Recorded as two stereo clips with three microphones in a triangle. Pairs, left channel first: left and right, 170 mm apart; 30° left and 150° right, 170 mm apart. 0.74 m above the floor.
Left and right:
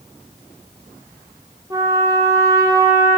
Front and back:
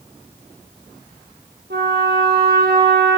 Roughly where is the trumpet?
Behind.